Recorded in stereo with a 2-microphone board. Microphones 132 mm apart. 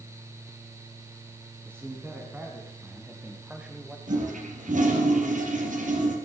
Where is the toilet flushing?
80° right, 3 m.